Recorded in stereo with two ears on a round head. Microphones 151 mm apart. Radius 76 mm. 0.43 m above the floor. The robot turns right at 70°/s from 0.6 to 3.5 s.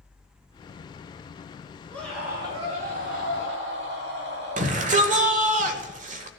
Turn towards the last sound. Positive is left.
turn(degrees=-45)  # may be behind; listen again after turning